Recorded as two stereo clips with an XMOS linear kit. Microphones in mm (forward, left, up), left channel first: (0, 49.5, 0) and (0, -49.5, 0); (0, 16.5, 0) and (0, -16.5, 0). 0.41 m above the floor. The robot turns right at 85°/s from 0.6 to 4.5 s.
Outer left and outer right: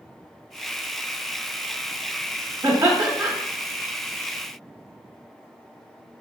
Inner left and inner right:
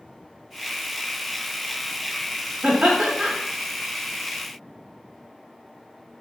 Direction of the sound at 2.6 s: 20° right (ahead or behind).